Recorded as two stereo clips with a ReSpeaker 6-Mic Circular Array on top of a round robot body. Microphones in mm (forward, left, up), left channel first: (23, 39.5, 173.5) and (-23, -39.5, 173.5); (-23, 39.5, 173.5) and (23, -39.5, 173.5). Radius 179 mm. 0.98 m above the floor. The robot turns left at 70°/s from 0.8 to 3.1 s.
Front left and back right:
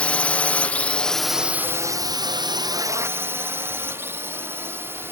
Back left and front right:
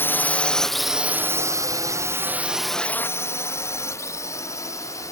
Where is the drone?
115° left; by 5.1 s 175° left.